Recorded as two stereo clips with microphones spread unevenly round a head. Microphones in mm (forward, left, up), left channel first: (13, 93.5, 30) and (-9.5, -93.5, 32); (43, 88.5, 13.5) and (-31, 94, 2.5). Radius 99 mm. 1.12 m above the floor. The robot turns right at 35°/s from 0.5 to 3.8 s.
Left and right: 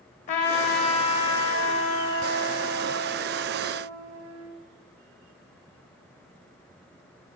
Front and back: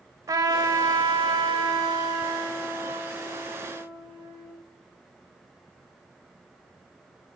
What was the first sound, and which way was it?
A trumpet, 135° left.